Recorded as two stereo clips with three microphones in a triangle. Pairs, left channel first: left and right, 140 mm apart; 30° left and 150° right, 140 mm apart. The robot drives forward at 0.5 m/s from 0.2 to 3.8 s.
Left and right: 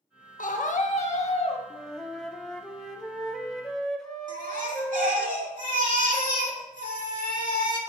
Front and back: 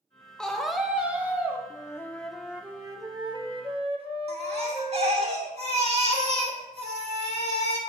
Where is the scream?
115° left, 1.2 m; by 1.6 s 135° left, 1.5 m.